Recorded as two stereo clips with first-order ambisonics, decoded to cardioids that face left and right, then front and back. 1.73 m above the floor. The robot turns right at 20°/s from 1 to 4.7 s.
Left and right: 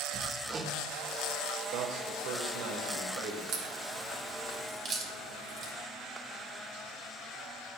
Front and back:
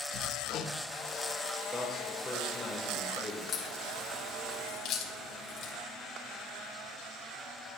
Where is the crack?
60° right, 2.5 m; by 5.7 s 35° right, 2.5 m.